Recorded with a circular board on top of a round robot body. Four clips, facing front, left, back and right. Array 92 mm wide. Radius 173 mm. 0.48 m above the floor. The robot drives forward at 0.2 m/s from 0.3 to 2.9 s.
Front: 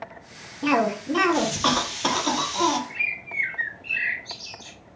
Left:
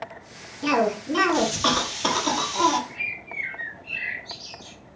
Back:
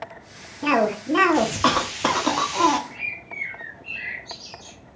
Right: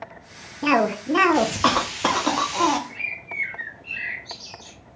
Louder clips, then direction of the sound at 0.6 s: Right 2 dB, back 1 dB; 105° right.